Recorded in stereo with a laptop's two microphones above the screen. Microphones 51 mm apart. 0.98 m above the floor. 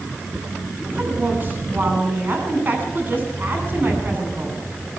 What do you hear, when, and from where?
0.8 s a woman speaking: 35° right (ahead or behind), 9 m